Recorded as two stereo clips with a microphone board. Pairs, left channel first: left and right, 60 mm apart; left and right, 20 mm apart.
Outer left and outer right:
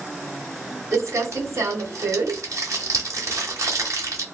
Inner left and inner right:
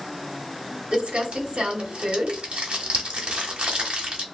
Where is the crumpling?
65° right (ahead or behind), 1.0 m.